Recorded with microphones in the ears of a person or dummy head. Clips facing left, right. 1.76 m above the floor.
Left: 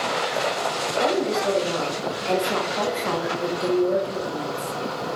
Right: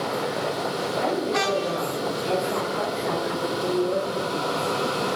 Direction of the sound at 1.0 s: 50° left (ahead or behind).